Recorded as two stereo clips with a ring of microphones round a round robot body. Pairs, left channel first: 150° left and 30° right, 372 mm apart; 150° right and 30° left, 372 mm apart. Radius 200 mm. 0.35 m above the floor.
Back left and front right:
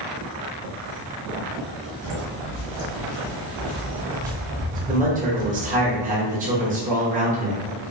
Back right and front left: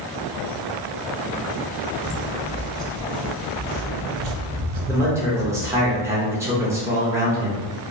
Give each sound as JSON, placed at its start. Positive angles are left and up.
{"t": 2.0, "sound": "footsteps", "azimuth_deg": 165, "distance_m": 1.2}
{"t": 4.9, "sound": "a man speaking", "azimuth_deg": -40, "distance_m": 0.8}